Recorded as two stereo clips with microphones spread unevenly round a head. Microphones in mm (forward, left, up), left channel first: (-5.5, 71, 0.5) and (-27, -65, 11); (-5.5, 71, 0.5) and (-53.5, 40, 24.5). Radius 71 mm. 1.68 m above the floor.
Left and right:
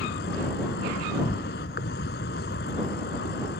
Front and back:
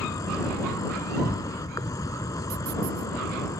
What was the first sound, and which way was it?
An insect, 55° left.